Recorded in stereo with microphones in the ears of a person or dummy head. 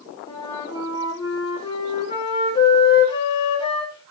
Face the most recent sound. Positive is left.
turn(degrees=30)  # may be behind; listen again after turning